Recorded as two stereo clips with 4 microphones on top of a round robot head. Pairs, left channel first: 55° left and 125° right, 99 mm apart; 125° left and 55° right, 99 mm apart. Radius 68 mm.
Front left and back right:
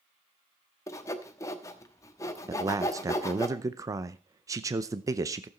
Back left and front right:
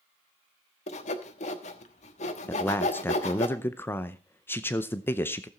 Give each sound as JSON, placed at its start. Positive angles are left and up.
{"t": 0.9, "sound": "sawing", "azimuth_deg": 120, "distance_m": 1.2}
{"t": 2.5, "sound": "a man speaking", "azimuth_deg": -175, "distance_m": 0.7}